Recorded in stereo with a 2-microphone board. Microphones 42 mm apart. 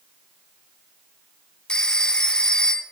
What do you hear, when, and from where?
1.7 s a phone ringing: 20° left (ahead or behind), 0.5 m